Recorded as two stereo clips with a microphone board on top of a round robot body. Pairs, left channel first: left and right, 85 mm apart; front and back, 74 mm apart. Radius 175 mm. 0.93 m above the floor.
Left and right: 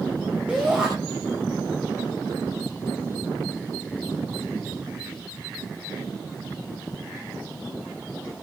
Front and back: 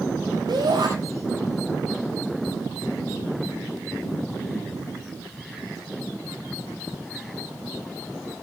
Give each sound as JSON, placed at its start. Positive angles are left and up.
{"t": 0.5, "sound": "a shout", "azimuth_deg": -165, "distance_m": 5.5}